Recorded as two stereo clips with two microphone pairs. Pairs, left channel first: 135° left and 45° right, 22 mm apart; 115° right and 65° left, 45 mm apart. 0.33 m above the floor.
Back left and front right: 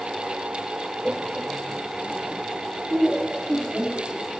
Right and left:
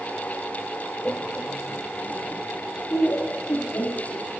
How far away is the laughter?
About 1.0 m.